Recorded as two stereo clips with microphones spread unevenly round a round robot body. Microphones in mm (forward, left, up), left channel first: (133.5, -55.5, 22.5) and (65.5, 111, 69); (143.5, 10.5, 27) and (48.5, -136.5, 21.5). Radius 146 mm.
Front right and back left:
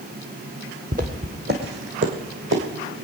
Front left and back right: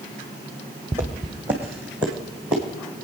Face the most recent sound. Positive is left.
turn(degrees=150)